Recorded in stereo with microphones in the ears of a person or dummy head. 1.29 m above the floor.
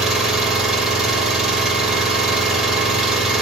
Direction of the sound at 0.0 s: 5° right (ahead or behind).